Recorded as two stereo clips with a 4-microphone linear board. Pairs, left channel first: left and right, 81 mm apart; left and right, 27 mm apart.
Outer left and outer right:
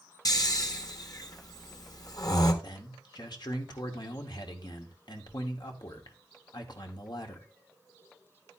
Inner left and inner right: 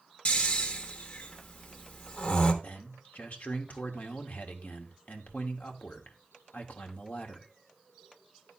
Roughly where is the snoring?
Left.